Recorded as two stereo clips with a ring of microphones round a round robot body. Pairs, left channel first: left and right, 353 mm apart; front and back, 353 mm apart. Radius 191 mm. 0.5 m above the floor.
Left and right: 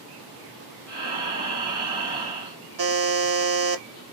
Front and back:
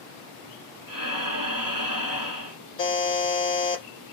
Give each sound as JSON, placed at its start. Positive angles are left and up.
{"t": 0.9, "sound": "breathing", "azimuth_deg": -145, "distance_m": 2.5}
{"t": 2.8, "sound": "a buzzer", "azimuth_deg": -80, "distance_m": 1.4}